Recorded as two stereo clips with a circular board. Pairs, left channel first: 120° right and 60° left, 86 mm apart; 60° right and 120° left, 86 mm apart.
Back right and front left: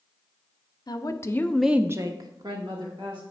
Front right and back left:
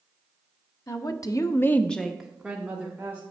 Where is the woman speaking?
95° right, 1.0 m; by 3.2 s 50° left, 1.9 m.